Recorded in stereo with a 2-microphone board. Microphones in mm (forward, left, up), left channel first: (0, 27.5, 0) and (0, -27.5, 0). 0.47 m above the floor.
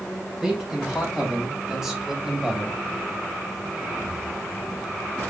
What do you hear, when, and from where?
0.4 s a man speaking: 10° right (ahead or behind), 3 m